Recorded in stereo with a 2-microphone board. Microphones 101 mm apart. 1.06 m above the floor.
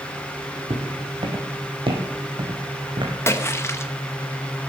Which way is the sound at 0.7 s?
55° right (ahead or behind).